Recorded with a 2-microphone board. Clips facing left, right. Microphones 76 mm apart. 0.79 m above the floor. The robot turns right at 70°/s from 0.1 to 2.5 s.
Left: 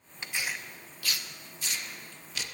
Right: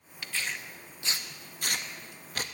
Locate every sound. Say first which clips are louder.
0.2 s tearing paper: even; 25° left (ahead or behind), 0.5 m; by 2.4 s 40° right (ahead or behind), 0.5 m